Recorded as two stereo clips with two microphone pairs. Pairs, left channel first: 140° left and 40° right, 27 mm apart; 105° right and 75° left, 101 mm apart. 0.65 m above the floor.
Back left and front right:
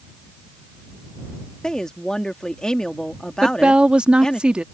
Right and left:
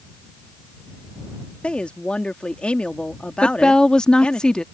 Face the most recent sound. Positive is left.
turn(degrees=-25)